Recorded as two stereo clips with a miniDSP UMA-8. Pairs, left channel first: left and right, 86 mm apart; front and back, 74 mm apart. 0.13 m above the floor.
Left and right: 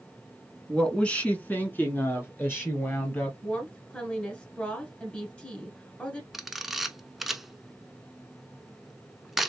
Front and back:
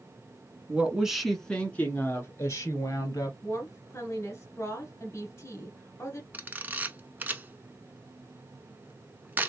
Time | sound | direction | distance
0.7 | a woman speaking | 155° left | 1.1 m
3.4 | a woman speaking | 20° left | 1.6 m
6.3 | a camera shutter | 175° right | 0.6 m